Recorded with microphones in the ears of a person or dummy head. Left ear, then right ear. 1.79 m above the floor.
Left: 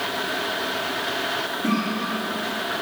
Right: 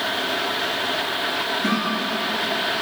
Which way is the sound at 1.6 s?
60° right (ahead or behind).